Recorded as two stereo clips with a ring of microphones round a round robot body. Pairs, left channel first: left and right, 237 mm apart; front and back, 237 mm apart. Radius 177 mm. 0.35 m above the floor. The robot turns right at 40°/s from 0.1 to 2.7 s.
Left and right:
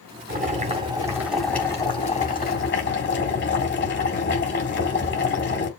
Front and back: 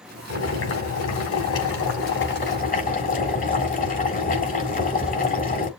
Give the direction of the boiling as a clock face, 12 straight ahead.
1 o'clock.